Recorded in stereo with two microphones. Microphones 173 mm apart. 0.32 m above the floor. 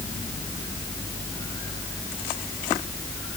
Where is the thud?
I don't hear a thud.